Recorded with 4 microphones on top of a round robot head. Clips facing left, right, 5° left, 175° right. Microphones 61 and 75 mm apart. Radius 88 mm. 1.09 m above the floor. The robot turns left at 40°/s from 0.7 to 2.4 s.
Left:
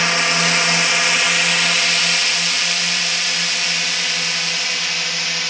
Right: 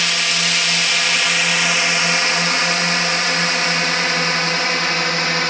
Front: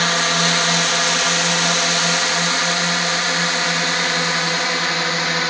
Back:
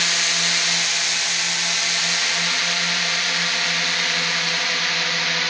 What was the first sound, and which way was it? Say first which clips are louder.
A drone: left 3 dB, front 7 dB; 30° left.